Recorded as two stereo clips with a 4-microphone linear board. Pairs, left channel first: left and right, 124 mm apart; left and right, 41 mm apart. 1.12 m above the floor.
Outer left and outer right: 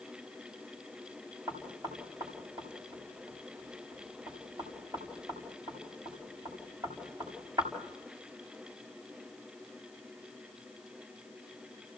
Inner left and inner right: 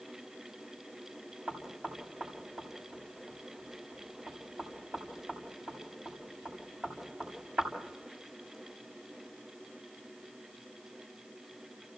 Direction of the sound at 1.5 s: 35° right (ahead or behind).